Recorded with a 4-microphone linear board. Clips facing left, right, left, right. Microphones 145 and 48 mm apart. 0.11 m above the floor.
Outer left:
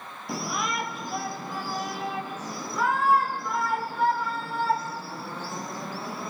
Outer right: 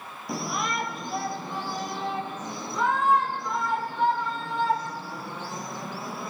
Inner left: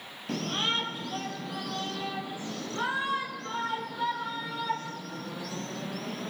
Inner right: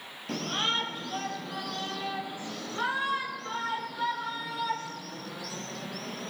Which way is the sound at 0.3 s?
Centre (ahead or behind).